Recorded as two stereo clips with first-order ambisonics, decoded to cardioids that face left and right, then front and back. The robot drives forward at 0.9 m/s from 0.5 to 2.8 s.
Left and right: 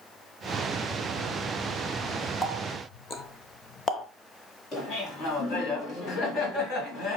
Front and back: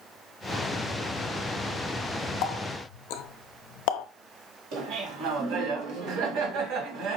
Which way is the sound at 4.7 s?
145° left.